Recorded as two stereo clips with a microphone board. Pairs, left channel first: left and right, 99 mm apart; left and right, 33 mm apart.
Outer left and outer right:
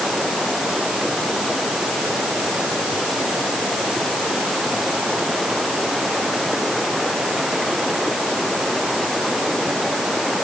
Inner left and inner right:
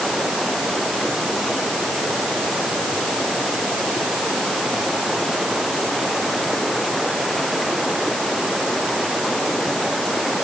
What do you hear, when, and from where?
0.0 s running water: centre (ahead or behind)